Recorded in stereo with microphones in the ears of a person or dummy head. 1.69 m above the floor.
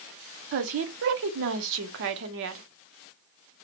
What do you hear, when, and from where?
0.5 s a woman speaking: 65° right (ahead or behind), 0.7 m